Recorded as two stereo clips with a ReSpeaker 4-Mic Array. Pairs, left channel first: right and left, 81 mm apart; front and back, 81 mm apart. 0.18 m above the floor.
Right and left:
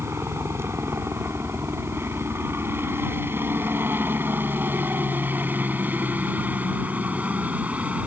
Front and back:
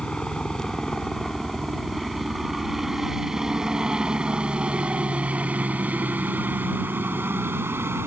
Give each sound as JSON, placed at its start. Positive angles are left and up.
{"t": 0.0, "sound": "a helicopter", "azimuth_deg": 75}